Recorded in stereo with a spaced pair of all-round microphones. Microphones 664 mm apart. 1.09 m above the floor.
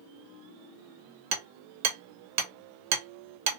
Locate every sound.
1.3 s hammering: 85° right, 0.8 m